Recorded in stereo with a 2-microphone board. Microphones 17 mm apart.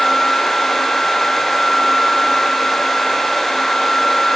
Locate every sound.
Only background noise.